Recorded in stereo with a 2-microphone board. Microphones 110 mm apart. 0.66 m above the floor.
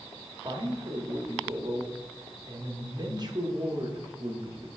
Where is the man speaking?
40° right (ahead or behind), 1.3 m.